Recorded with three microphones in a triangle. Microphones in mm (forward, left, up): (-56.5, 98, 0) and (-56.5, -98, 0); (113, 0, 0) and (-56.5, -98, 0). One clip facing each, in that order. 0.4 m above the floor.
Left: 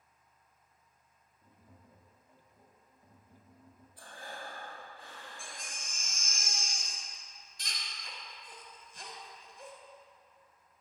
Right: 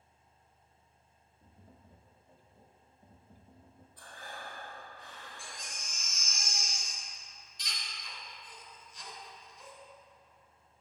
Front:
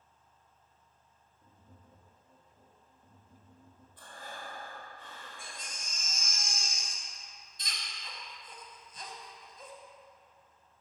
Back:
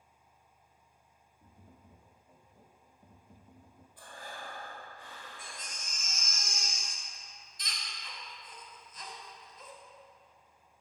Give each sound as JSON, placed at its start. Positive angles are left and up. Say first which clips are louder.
{"t": 1.4, "sound": "tapping", "louder": "right 1 dB, back 2 dB", "azimuth_deg": -140, "distance_m": 0.6}
{"t": 4.0, "sound": "breathing", "louder": "left 2 dB, even", "azimuth_deg": 140, "distance_m": 1.0}
{"t": 5.4, "sound": "a baby crying", "louder": "even, even", "azimuth_deg": 80, "distance_m": 0.8}